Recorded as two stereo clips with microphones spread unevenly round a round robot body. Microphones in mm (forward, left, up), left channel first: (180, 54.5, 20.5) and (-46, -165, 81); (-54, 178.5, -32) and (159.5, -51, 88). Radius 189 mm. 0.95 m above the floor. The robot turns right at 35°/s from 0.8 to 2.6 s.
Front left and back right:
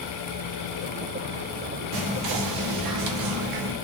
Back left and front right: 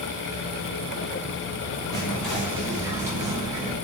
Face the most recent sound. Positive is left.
turn(degrees=-140)